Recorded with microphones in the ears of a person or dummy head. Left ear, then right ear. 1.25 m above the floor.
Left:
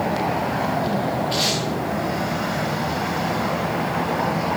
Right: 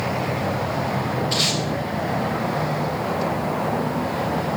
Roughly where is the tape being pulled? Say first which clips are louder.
Right 1 dB; right.